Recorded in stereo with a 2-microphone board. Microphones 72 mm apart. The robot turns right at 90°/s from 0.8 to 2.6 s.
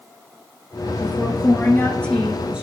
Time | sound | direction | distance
1.0 | a woman speaking | 60° left | 1.9 m